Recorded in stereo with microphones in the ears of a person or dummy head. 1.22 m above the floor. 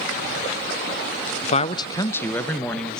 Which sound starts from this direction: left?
A man speaking, at 1.4 s.